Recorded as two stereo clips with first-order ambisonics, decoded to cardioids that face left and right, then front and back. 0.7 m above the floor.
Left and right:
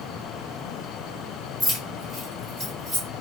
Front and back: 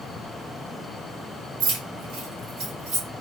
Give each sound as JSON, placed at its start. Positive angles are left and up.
{"t": 1.6, "sound": "keys jangling", "azimuth_deg": -175, "distance_m": 1.5}